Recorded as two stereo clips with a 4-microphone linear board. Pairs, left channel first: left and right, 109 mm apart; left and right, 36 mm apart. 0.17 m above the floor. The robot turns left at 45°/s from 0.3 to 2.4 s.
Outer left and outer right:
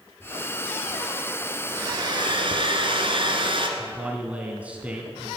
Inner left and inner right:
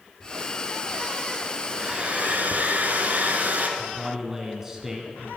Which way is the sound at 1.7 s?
35° right.